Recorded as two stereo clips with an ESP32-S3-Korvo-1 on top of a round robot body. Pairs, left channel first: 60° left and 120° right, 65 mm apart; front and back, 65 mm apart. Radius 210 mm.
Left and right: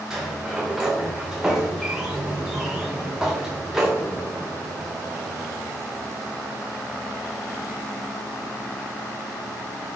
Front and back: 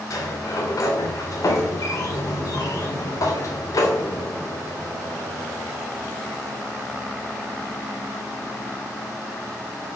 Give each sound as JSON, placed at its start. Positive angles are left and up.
{"t": 0.1, "sound": "a sliding door", "azimuth_deg": -35, "distance_m": 0.5}